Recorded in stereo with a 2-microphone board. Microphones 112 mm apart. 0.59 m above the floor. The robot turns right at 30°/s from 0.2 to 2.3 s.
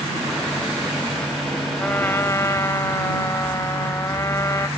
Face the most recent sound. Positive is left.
turn(degrees=30)  # may be behind; listen again after turning